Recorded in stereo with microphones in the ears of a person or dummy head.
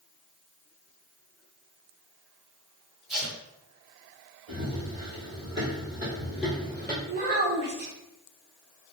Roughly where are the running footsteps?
Right.